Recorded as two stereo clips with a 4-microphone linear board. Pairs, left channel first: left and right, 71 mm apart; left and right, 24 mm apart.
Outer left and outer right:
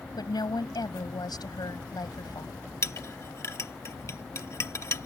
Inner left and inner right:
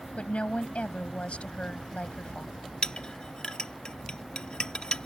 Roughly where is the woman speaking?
Left.